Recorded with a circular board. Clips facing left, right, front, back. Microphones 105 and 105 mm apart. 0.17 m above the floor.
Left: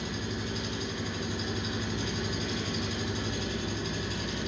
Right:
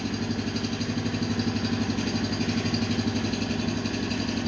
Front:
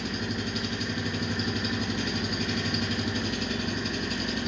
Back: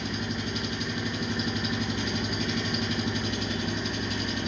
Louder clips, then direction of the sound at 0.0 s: Right 6 dB, even; 90° right.